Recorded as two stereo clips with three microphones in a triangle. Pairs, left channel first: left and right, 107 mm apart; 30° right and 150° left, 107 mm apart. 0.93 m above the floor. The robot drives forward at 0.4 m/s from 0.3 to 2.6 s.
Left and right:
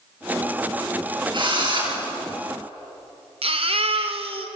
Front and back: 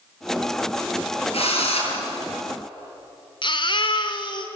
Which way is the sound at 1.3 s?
45° right.